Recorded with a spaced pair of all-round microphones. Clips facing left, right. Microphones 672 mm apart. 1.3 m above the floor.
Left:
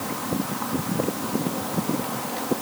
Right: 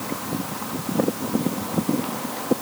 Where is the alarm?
I don't hear an alarm.